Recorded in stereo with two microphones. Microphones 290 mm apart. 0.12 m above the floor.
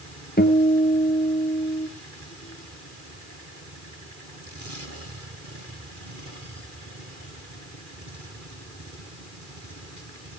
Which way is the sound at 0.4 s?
30° left (ahead or behind).